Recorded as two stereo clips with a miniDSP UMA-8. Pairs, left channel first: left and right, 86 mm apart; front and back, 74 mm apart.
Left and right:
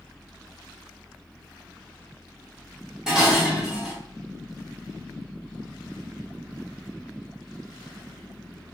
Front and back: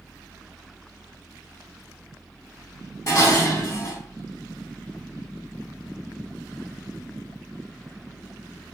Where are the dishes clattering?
10° right, 1.0 m.